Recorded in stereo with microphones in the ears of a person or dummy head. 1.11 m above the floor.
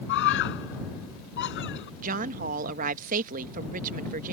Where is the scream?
60° left (ahead or behind).